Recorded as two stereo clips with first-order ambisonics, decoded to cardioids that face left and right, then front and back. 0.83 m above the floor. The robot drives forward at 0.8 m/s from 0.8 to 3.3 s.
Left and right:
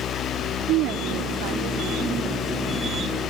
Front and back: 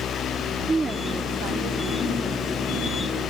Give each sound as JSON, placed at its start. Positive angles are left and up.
{"t": 0.7, "sound": "a woman speaking", "azimuth_deg": -105}